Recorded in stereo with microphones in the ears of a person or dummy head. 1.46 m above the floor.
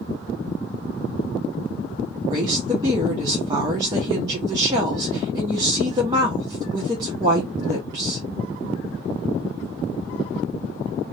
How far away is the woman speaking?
About 0.7 m.